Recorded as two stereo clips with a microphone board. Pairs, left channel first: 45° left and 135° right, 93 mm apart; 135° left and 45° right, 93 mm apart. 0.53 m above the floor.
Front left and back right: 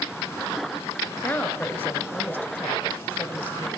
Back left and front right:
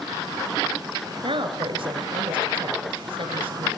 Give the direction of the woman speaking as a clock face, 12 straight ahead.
1 o'clock.